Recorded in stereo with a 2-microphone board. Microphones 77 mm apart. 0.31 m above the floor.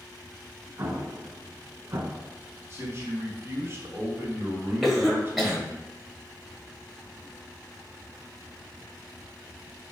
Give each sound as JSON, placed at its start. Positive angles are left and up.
{"t": 0.8, "sound": "an explosion", "side_deg": -45, "distance_m": 0.5}
{"t": 2.7, "sound": "a man speaking", "side_deg": -35, "distance_m": 1.5}
{"t": 4.8, "sound": "a cough", "side_deg": 0, "distance_m": 1.3}